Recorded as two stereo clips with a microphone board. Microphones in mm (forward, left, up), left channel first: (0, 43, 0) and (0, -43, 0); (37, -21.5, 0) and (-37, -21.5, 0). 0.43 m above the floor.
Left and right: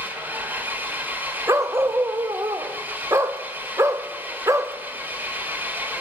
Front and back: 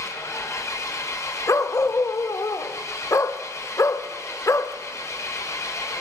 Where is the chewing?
I don't hear chewing.